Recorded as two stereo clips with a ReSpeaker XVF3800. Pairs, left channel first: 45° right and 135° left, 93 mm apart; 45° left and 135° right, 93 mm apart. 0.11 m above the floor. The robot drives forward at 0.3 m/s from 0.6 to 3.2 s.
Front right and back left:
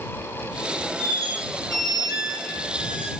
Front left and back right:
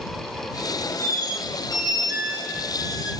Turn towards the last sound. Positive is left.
turn(degrees=175)